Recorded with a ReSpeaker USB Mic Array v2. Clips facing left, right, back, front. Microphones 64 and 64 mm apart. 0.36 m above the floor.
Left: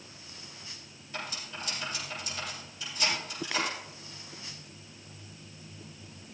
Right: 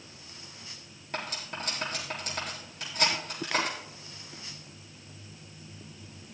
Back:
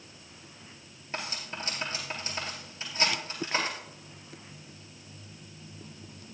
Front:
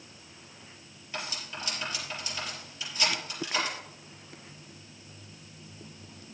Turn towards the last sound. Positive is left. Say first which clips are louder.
# right 3 dB, back 1 dB
turn(degrees=-125)